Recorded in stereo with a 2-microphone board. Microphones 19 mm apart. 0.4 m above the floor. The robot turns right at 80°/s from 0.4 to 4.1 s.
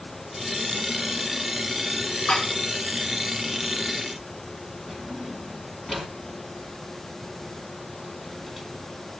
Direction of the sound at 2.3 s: 65° left (ahead or behind).